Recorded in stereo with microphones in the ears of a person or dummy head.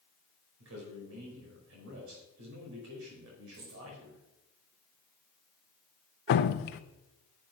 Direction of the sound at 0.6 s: 80° right.